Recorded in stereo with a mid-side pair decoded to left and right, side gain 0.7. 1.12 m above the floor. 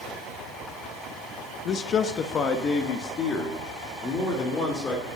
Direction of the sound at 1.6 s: 45° left.